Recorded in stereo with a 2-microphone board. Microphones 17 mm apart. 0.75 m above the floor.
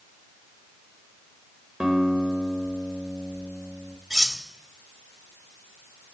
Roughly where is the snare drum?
I don't hear a snare drum.